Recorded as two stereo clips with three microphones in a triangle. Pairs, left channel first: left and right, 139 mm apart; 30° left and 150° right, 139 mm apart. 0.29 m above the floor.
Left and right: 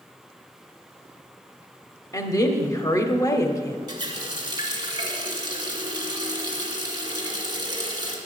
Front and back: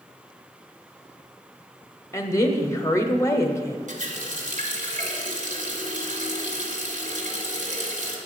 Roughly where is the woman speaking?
Ahead left.